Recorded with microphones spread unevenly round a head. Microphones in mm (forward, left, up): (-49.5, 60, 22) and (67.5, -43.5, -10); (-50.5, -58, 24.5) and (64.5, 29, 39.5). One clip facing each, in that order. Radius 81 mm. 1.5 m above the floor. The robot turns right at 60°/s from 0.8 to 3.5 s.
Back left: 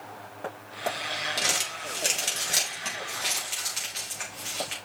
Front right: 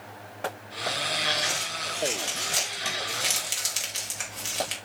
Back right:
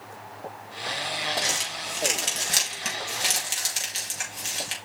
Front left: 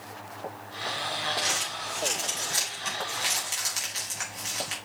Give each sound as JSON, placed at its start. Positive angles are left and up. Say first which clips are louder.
{"t": 1.4, "sound": "crumpling", "louder": "even, back right 2 dB", "azimuth_deg": 150, "distance_m": 4.5}